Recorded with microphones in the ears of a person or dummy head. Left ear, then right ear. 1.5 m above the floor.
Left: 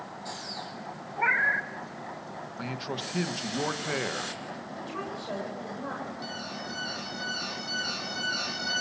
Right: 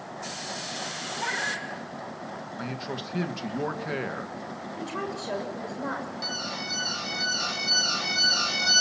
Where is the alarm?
15° right (ahead or behind), 3.5 m.